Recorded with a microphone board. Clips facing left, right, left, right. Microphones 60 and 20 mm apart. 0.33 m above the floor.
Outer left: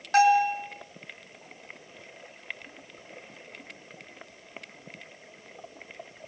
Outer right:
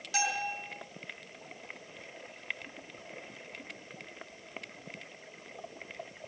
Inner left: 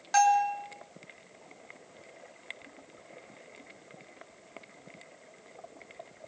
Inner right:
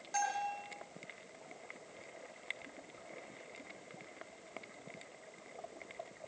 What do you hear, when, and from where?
0.1 s a bell: 50° left (ahead or behind), 4.5 m